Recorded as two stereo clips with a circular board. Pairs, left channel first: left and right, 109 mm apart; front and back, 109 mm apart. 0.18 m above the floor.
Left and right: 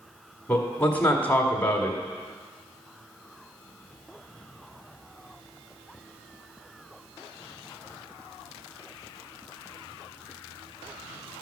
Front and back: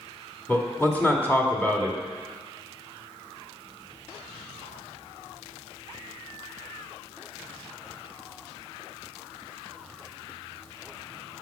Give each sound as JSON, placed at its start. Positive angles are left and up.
{"t": 0.5, "sound": "a man speaking", "azimuth_deg": 40, "distance_m": 1.5}